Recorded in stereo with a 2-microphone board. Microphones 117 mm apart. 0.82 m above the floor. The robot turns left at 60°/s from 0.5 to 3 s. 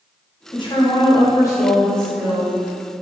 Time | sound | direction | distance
0.5 | a woman speaking | 95° left | 0.7 m